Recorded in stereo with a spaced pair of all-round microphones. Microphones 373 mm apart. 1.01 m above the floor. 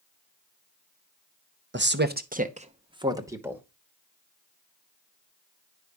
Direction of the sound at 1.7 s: 30° right (ahead or behind).